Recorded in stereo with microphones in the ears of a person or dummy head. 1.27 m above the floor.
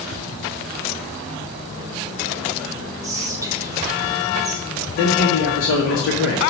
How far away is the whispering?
About 0.8 m.